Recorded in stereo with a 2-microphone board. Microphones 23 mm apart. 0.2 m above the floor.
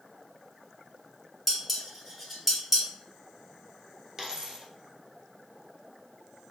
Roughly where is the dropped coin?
Right.